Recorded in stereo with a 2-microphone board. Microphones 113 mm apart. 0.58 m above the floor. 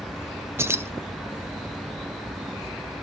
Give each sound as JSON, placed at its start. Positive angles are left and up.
{"t": 0.6, "sound": "keys jangling", "side_deg": -20, "distance_m": 0.6}